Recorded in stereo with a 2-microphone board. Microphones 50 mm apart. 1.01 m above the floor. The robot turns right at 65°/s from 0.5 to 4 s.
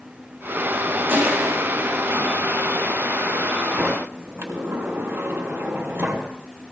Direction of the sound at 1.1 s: 50° right (ahead or behind).